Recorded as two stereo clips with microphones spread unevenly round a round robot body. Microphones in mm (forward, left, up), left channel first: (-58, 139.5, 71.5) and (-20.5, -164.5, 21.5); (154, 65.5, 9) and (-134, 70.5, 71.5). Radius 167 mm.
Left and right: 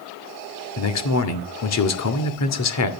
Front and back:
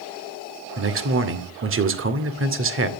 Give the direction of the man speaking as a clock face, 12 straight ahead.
8 o'clock.